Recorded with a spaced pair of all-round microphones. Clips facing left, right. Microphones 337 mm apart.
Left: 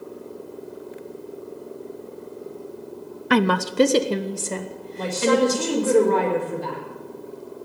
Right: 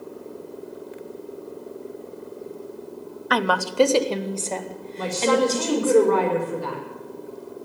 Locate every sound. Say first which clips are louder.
3.3 s a woman speaking: left 5 dB; 35° left (ahead or behind), 0.6 m; by 5.9 s 15° left (ahead or behind), 2.5 m
4.9 s a woman speaking: left 1 dB; 15° right (ahead or behind), 4 m